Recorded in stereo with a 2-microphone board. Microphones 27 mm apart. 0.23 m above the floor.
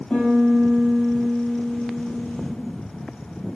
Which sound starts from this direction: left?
A piano, at 0.1 s.